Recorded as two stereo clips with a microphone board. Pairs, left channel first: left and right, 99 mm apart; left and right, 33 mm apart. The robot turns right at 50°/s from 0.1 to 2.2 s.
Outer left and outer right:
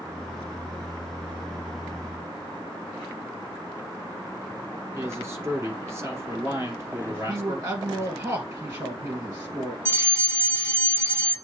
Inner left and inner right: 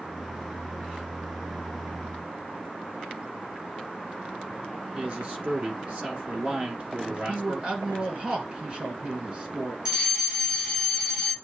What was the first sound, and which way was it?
A man speaking, 25° right (ahead or behind).